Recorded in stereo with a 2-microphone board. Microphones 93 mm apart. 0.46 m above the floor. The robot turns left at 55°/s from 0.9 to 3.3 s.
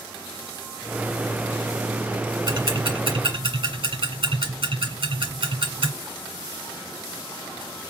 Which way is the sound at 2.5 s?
50° right (ahead or behind).